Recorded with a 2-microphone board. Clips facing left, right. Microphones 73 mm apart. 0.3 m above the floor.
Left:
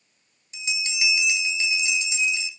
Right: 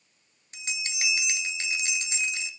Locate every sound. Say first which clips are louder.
0.5 s a bell: left 5 dB; 45° right (ahead or behind), 0.8 m